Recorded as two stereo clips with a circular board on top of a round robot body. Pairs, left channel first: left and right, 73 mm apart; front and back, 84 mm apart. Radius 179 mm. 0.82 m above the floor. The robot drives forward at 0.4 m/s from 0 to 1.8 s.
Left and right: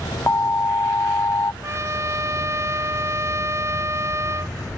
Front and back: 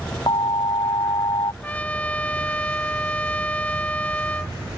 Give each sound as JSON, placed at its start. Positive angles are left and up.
{"t": 0.3, "sound": "an alarm", "azimuth_deg": 30}
{"t": 1.6, "sound": "a trumpet", "azimuth_deg": -65}